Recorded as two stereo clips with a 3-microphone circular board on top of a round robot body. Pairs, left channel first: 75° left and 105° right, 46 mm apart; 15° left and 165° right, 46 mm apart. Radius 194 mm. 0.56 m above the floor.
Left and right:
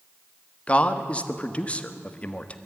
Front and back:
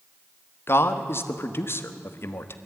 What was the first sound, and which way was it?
A man speaking, 15° left.